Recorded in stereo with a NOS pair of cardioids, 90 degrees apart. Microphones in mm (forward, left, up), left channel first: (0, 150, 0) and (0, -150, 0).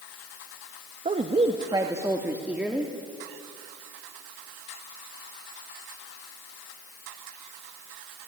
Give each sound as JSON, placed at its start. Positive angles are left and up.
{"t": 1.1, "sound": "a woman speaking", "azimuth_deg": -25, "distance_m": 1.6}